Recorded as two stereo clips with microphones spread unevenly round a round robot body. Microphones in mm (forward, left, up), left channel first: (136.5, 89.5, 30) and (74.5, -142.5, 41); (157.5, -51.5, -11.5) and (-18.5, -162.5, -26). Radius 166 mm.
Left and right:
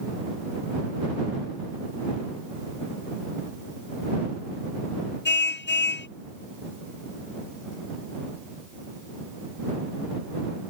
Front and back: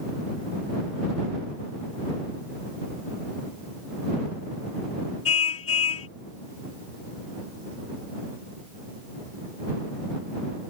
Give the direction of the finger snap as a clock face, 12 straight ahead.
I don't hear a finger snap.